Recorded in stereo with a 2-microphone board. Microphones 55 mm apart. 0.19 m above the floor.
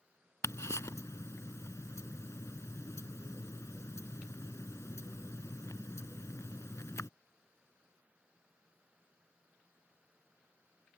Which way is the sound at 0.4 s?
65° left (ahead or behind).